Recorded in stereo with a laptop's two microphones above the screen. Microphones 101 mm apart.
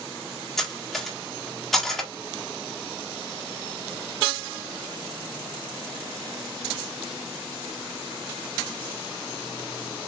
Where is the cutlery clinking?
5° left (ahead or behind), 1.1 m.